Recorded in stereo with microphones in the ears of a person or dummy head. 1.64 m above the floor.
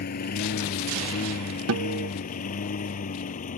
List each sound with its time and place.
0.0 s a lawn mower: 50° left (ahead or behind); by 3.6 s 40° left (ahead or behind)
1.7 s a guitar: 75° right (ahead or behind)